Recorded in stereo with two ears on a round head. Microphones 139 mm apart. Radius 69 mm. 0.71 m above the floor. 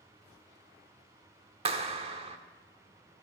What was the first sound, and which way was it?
A clap, 40° right (ahead or behind).